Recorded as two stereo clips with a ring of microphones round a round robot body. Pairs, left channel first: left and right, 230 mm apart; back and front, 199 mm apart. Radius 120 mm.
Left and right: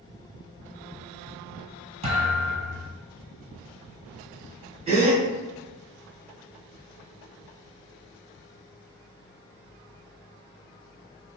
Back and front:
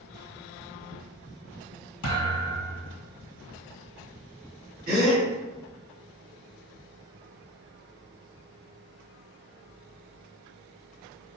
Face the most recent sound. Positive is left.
turn(degrees=-30)